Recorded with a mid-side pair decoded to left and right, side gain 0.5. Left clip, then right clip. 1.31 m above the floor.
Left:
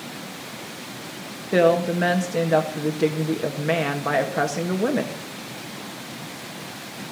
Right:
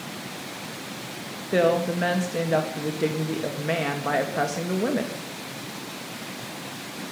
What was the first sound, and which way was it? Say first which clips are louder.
A woman speaking: left 3 dB; 15° left.